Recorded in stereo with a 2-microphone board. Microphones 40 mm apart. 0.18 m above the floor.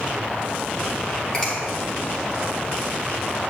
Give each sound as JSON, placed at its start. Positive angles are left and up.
{"t": 1.3, "sound": "a finger snap", "side_deg": 15, "distance_m": 4.0}